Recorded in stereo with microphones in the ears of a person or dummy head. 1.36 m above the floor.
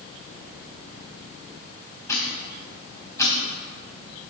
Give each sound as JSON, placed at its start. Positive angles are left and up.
{"t": 2.1, "sound": "ticking", "side_deg": 15, "distance_m": 2.5}